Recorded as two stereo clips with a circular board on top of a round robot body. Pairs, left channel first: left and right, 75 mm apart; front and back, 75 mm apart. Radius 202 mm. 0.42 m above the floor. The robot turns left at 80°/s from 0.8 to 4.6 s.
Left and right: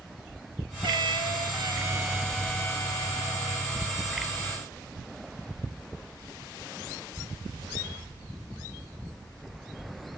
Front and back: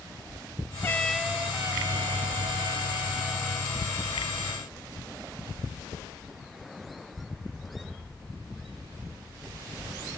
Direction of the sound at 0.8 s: 60° right.